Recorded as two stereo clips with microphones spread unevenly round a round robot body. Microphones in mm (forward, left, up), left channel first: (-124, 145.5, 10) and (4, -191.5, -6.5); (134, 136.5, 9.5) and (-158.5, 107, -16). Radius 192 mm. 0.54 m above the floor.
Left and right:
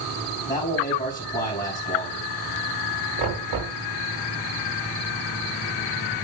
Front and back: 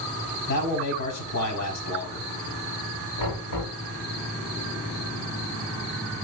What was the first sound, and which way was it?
A man speaking, 30° left.